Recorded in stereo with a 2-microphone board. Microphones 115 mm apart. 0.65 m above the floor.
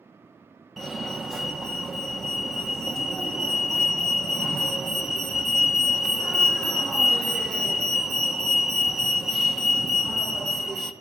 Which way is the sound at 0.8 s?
Centre (ahead or behind).